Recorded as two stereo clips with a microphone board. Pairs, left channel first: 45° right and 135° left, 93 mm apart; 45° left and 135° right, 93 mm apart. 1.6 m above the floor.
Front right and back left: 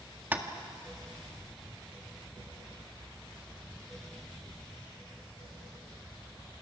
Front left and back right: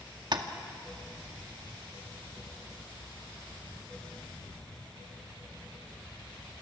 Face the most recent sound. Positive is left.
turn(degrees=-160)